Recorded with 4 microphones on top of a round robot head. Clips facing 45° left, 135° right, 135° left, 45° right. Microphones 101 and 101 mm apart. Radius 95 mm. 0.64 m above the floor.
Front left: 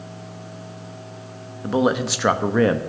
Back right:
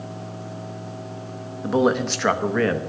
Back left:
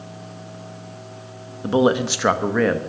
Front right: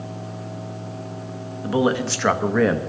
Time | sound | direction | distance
1.6 | a man speaking | 140° left | 1.2 m